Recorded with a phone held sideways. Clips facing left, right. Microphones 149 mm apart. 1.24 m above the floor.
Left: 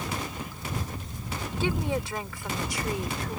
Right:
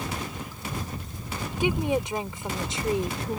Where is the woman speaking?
15° right (ahead or behind); by 3.4 s 30° right (ahead or behind).